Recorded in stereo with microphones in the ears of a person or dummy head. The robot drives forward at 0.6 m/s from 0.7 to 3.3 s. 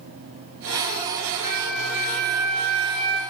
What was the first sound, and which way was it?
A flute, 25° right (ahead or behind).